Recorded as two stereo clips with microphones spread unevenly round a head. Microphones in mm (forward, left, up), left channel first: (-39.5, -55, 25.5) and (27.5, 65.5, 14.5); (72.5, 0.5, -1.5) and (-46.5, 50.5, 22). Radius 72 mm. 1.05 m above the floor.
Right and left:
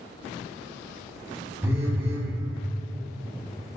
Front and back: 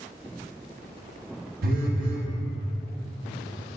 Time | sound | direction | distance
1.6 | a phone buzzing | 135° left | 0.9 m